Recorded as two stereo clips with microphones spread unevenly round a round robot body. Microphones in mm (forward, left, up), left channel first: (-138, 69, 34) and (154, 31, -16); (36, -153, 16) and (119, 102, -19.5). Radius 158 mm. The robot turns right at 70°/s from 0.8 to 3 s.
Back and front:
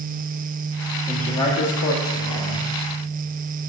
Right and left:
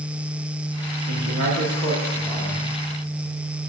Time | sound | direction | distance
1.1 | a man speaking | 70° left | 1.3 m